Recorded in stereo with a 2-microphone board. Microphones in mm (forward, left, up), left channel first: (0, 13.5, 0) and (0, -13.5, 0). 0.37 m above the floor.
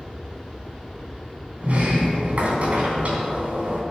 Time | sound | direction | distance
1.6 | a sliding door | 55° right (ahead or behind) | 3 m